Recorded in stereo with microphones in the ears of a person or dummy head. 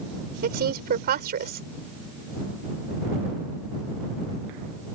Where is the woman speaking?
50° right (ahead or behind).